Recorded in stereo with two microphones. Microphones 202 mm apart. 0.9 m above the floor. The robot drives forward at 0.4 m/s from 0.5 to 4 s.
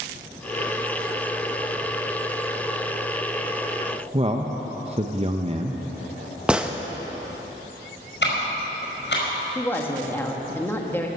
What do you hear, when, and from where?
4.1 s a man speaking: 30° right (ahead or behind), 0.8 m
6.5 s a gunshot: 5° right (ahead or behind), 0.7 m
8.2 s ticking: 60° left (ahead or behind), 5 m
9.6 s a woman speaking: 10° left (ahead or behind), 1.7 m